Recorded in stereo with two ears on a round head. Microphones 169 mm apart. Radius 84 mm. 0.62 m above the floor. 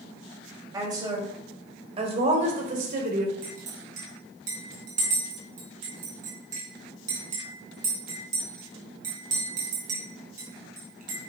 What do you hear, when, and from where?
0.7 s a woman speaking: 20° right (ahead or behind), 3 m; by 3.3 s 50° right (ahead or behind), 2 m
3.4 s a clink: 45° right (ahead or behind), 3.5 m